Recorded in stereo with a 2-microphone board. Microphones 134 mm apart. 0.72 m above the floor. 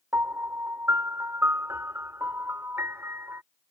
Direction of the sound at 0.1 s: 20° right (ahead or behind).